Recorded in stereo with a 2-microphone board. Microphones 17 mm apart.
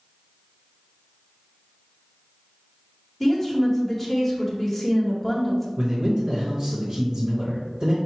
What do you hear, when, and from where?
3.2 s a woman speaking: 10° left (ahead or behind), 1.2 m
5.8 s a man speaking: 40° right (ahead or behind), 1.3 m